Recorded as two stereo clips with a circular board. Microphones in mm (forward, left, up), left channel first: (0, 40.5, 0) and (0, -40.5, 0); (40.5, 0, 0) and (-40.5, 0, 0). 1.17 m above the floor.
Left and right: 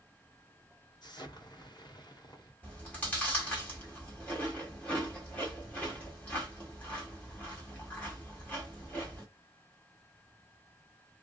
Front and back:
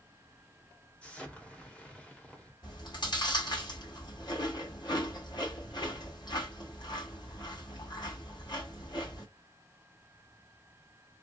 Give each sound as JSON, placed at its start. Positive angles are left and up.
{"t": 1.0, "sound": "an explosion", "azimuth_deg": 75, "distance_m": 1.3}
{"t": 2.6, "sound": "chewing", "azimuth_deg": 20, "distance_m": 1.6}